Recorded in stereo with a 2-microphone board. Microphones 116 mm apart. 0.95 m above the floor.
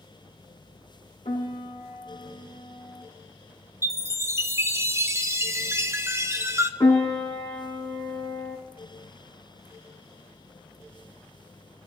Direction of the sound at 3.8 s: 25° right (ahead or behind).